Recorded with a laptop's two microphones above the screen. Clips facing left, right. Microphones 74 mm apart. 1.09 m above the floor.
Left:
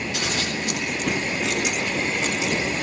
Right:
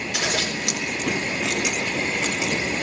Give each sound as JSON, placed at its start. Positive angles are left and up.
{"t": 0.1, "sound": "scissors", "side_deg": -85, "distance_m": 6.0}